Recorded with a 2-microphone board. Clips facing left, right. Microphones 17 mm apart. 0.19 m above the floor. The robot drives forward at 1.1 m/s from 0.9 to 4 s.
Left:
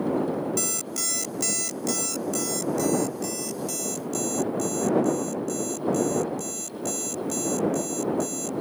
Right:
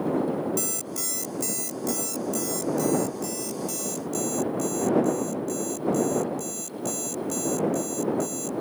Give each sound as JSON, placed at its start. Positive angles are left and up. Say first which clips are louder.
{"t": 0.6, "sound": "an alarm clock", "louder": "left 2 dB", "side_deg": 20}